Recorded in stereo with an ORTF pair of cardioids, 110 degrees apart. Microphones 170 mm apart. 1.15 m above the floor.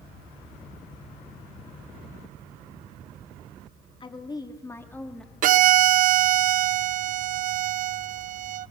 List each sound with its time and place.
4.0 s a woman speaking: 30° left, 2.5 m; by 5.3 s 5° left, 2.5 m
5.4 s a violin: 50° right, 0.5 m